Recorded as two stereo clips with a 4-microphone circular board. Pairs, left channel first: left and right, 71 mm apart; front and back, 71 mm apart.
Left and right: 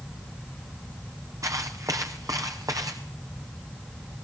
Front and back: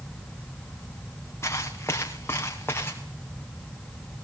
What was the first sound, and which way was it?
Footsteps, 50° right.